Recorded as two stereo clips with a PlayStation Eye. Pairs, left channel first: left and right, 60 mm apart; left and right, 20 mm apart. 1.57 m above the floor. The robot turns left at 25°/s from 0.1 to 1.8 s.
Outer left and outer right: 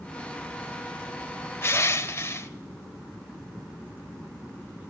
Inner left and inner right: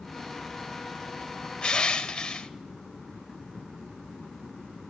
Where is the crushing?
35° left (ahead or behind), 0.7 m; by 2.5 s 40° left (ahead or behind), 0.7 m.